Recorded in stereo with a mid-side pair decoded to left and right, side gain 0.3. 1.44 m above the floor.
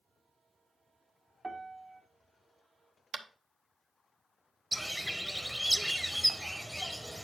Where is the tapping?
65° right, 1.0 m.